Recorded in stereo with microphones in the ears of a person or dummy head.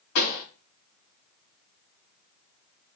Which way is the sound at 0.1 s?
80° left.